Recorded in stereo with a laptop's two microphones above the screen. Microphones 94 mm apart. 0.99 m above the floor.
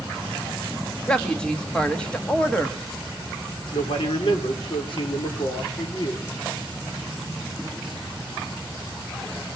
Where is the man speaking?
70° left (ahead or behind), 3 m.